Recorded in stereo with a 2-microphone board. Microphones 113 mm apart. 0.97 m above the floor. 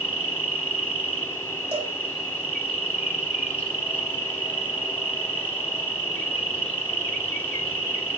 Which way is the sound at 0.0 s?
10° left (ahead or behind).